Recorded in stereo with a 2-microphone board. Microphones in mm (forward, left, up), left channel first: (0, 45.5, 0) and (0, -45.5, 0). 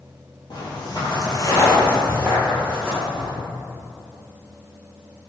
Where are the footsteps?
55° left (ahead or behind), 1.4 m; by 3.3 s centre (ahead or behind), 1.7 m.